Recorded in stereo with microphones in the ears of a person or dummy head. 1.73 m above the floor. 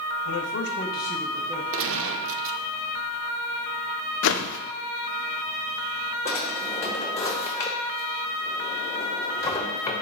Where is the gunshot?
70° right (ahead or behind), 0.6 m.